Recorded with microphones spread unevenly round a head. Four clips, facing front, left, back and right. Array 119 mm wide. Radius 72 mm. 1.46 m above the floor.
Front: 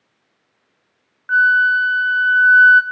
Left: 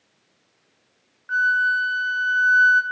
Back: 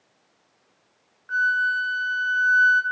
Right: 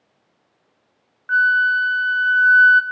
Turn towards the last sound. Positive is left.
turn(degrees=0)